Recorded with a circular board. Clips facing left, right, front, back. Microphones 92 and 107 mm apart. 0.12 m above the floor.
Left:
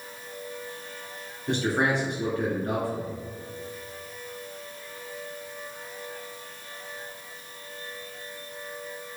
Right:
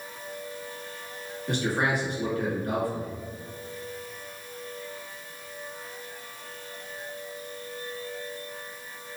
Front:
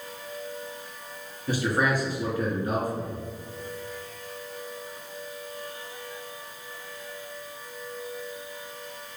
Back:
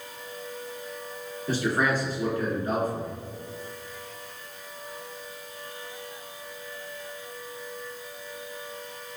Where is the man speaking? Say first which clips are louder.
Left 2 dB, even; 65° left, 1.3 m.